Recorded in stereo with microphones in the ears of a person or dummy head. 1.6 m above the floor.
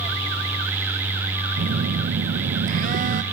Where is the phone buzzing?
40° right (ahead or behind), 0.9 m.